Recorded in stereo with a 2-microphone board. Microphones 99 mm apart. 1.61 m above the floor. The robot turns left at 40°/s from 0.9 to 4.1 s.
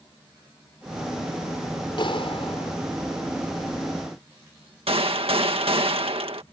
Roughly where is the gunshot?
Right.